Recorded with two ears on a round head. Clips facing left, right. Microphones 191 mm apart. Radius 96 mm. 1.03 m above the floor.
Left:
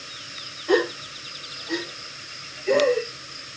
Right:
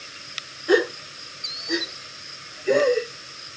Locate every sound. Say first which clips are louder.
0.7 s a gasp: right 1 dB; 15° right (ahead or behind), 1.3 m